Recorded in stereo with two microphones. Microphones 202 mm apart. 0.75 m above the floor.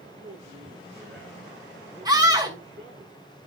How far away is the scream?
About 6 m.